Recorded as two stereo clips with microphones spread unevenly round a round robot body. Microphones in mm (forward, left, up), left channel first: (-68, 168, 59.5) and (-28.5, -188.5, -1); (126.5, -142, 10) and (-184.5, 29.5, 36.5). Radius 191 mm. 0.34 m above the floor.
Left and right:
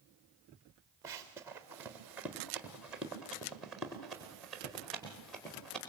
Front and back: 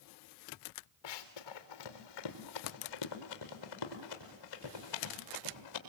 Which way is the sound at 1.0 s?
Straight ahead.